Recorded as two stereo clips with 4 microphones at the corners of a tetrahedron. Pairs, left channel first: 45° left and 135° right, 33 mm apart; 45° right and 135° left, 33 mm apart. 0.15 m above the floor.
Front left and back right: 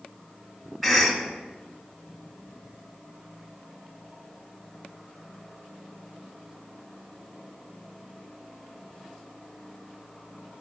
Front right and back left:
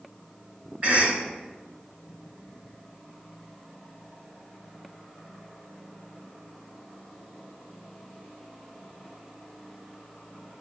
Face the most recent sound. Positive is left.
turn(degrees=145)